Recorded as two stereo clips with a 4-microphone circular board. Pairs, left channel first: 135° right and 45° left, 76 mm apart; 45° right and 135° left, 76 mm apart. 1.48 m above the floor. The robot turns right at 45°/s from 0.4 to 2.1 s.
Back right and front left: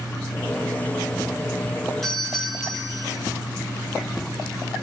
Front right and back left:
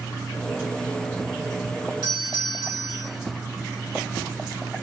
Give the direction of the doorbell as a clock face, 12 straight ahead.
7 o'clock.